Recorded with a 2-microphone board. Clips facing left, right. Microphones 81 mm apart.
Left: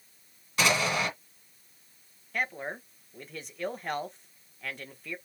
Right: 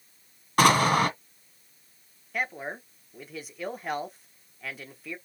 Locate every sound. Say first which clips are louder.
0.6 s an explosion: right 7 dB; 50° right (ahead or behind), 1.6 m
2.3 s a man speaking: right 1 dB; 5° right (ahead or behind), 1.1 m